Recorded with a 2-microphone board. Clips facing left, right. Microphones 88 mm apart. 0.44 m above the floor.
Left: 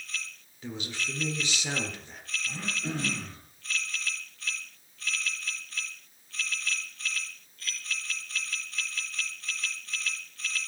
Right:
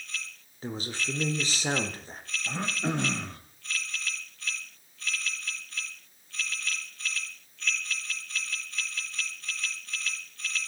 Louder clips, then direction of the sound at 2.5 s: Right 5 dB; 70° right (ahead or behind).